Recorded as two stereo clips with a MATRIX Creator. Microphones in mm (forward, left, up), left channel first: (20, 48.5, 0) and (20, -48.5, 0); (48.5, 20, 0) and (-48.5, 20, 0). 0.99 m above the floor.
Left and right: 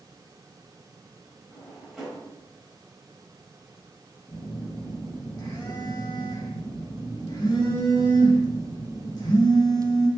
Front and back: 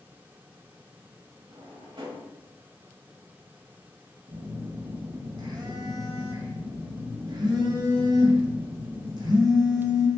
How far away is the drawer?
About 1.1 m.